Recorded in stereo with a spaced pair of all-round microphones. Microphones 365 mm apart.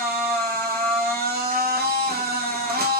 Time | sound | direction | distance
0.0 | a machine running | 25° right (ahead or behind) | 1.2 m